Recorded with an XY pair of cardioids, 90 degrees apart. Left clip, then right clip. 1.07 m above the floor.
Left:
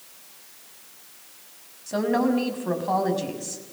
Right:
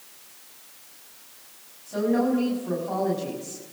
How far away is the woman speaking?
About 6.5 m.